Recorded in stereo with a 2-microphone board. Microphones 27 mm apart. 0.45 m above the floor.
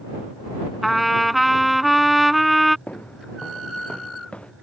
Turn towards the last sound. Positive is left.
turn(degrees=40)  # may be behind; listen again after turning